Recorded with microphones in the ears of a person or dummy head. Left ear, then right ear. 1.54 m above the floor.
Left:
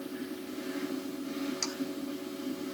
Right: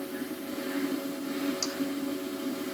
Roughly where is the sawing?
Centre.